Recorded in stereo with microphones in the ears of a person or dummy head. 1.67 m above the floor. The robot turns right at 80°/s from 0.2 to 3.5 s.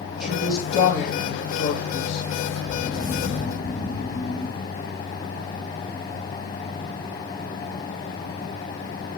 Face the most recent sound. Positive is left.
turn(degrees=40)